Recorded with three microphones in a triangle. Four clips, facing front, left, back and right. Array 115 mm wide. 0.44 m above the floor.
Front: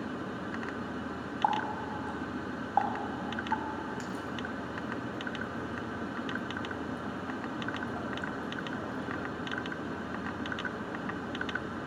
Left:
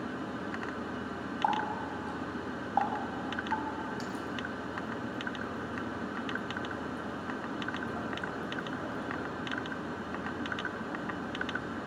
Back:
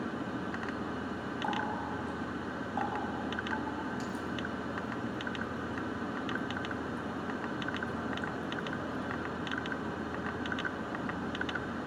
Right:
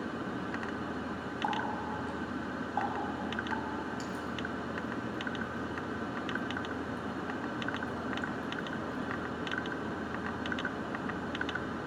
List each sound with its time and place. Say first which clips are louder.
1.4 s a running tap: left 3 dB, front 5 dB; 20° left, 1.8 m